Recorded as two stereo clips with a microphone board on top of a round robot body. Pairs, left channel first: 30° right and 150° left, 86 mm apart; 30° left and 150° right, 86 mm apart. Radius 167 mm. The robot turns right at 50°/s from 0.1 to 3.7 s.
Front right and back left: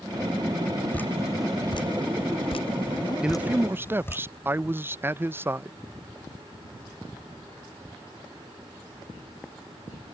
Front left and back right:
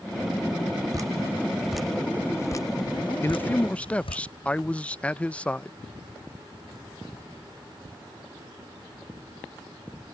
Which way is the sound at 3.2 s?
75° left.